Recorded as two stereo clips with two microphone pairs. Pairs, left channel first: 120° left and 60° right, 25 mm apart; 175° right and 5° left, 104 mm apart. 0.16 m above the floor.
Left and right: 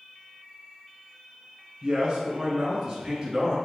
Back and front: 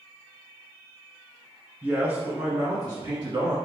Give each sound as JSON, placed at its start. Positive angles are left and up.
{"t": 1.8, "sound": "a man speaking", "azimuth_deg": -40, "distance_m": 1.3}